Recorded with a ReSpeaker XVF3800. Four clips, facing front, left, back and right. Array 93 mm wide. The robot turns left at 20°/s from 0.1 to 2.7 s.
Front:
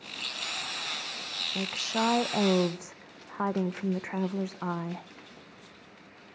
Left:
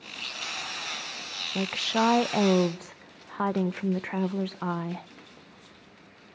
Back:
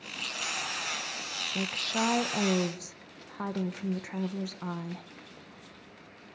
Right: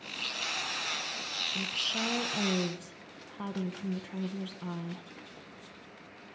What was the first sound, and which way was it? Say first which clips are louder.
A woman speaking: left 11 dB, front 1 dB; 85° left.